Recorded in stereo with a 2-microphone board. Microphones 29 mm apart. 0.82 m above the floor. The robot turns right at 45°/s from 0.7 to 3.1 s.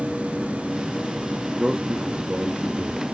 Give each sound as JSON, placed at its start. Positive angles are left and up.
{"t": 1.5, "sound": "a man speaking", "azimuth_deg": -160, "distance_m": 0.9}